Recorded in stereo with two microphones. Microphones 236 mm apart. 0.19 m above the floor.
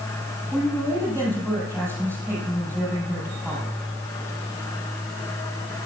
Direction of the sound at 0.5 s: 10° right (ahead or behind).